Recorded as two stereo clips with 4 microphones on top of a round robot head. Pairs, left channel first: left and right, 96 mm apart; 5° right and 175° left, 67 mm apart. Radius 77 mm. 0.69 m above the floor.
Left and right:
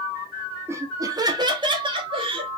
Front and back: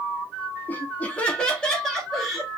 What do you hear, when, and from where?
0.7 s laughter: 45° right, 0.8 m; by 2.5 s 95° right, 1.3 m